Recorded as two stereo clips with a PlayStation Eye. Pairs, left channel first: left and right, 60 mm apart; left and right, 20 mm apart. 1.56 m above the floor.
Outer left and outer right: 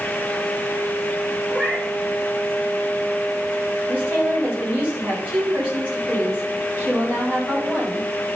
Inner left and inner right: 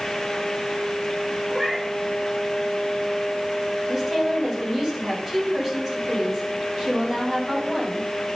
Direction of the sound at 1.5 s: 20° right (ahead or behind).